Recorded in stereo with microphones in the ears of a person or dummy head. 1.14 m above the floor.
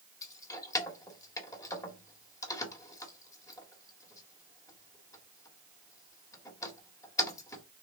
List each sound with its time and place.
0.2 s keys jangling: 20° left (ahead or behind), 2 m